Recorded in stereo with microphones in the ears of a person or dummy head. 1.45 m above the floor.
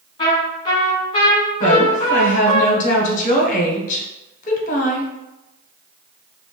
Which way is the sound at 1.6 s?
50° left (ahead or behind).